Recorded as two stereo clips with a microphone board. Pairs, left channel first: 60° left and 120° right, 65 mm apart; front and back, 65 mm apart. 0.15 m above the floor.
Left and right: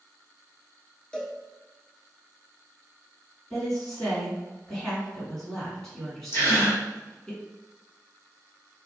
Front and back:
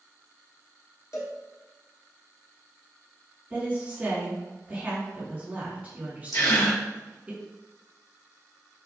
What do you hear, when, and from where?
1.1 s a cowbell: 10° right, 0.8 m
3.5 s a woman speaking: 140° left, 1.5 m
6.3 s a gasp: 15° left, 1.9 m